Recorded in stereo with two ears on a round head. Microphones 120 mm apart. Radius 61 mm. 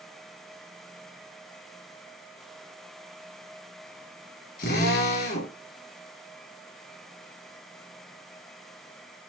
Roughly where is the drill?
Left.